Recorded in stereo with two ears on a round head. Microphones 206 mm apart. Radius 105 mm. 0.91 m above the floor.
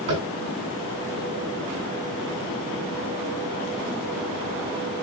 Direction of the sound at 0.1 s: 60° right (ahead or behind).